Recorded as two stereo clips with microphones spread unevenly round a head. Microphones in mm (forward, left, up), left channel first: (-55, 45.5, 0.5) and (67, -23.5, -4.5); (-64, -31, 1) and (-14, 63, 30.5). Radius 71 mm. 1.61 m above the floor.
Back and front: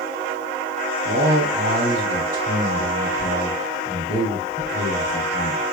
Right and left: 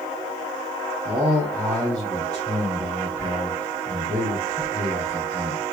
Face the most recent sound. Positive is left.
turn(degrees=-15)